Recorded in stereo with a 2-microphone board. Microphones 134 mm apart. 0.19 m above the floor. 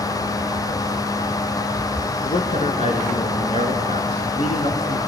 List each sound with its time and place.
2.2 s a man speaking: 50° left (ahead or behind), 2.5 m